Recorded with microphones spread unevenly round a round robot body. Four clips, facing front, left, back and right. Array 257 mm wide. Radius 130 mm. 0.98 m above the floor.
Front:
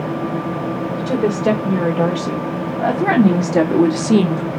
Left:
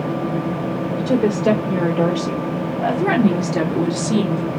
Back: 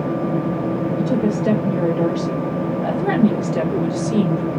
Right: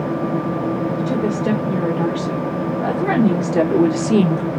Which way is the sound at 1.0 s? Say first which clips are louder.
Left 2 dB, front 3 dB; 35° left.